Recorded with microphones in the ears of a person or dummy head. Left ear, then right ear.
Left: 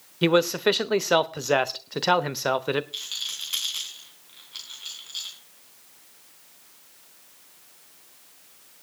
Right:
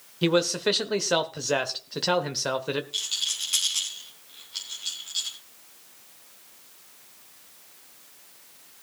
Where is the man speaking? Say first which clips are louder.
Left 3 dB; 30° left (ahead or behind), 0.8 m.